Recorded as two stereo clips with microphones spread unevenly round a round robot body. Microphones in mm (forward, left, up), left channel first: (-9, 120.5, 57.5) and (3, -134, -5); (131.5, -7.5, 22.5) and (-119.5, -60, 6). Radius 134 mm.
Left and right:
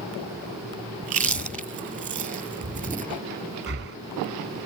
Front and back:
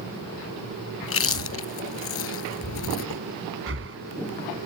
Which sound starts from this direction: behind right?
Breathing, at 3.7 s.